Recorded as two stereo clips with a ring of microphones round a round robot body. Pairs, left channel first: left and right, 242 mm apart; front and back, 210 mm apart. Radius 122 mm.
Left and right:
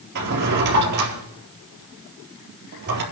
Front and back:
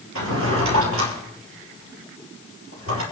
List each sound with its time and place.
0.1 s a drawer: 140° right, 4 m